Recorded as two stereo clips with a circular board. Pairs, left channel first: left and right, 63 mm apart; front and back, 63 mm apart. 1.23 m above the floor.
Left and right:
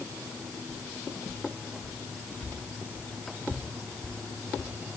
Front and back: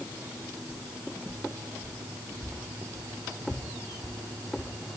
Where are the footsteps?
110° left, 3.5 m; by 4.7 s 175° left, 4.5 m.